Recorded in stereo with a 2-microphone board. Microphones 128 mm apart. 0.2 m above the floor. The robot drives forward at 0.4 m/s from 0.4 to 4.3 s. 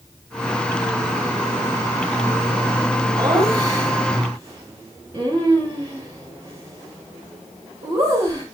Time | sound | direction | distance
3.2 | laughter | 25° right (ahead or behind) | 3.5 m